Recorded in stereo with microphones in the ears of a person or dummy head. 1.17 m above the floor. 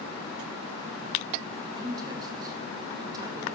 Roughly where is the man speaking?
Right.